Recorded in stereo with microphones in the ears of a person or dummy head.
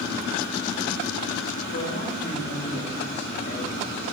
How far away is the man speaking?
About 2.5 m.